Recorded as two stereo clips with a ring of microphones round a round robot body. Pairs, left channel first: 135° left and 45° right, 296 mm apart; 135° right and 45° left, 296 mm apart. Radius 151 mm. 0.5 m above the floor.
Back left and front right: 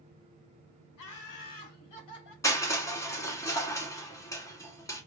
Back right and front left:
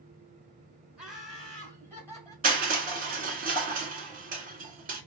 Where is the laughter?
130° left, 2 m; by 2.3 s 145° left, 3 m.